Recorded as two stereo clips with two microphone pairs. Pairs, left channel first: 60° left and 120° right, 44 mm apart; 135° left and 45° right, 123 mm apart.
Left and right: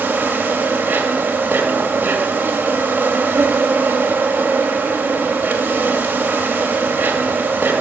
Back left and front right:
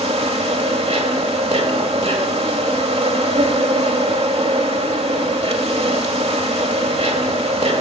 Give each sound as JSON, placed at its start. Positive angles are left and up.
{"t": 0.0, "sound": "an insect", "azimuth_deg": -75, "distance_m": 1.7}